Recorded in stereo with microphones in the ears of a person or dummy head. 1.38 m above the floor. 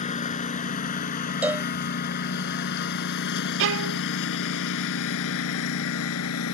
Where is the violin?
65° right (ahead or behind).